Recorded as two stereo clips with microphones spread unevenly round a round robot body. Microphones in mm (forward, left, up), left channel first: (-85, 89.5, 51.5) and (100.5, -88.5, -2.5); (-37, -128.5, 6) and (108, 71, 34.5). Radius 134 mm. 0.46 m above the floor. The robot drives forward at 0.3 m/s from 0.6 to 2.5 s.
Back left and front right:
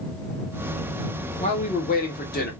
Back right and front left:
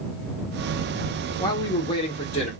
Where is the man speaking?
165° right, 0.9 m; by 2.5 s 170° right, 1.0 m.